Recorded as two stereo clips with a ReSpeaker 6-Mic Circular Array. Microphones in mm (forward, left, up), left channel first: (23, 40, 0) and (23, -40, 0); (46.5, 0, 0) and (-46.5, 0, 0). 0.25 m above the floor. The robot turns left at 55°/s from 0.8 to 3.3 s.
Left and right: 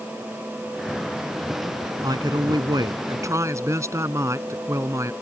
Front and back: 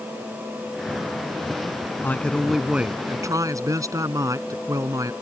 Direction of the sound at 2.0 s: 65° right.